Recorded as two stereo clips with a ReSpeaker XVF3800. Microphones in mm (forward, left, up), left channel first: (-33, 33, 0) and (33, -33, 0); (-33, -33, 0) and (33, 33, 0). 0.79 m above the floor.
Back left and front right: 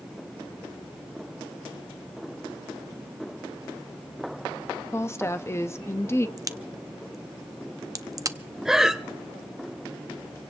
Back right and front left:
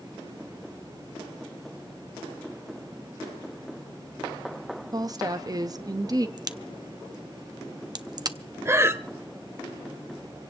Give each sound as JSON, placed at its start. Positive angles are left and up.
{"t": 4.9, "sound": "a woman speaking", "azimuth_deg": 80, "distance_m": 0.6}
{"t": 6.4, "sound": "a crack", "azimuth_deg": 5, "distance_m": 0.6}
{"t": 8.7, "sound": "breathing", "azimuth_deg": 35, "distance_m": 0.5}